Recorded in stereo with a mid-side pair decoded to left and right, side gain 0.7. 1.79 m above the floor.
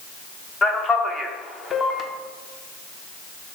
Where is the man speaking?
30° left, 0.7 m.